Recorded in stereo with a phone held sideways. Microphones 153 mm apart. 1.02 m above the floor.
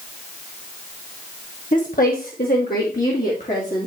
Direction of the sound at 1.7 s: 55° left (ahead or behind).